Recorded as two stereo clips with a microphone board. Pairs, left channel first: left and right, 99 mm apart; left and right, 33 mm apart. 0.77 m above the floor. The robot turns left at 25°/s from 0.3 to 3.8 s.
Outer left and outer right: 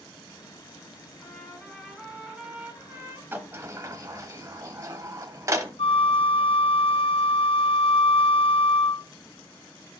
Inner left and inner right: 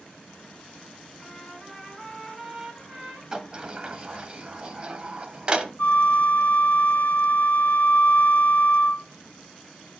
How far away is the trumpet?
About 3.5 m.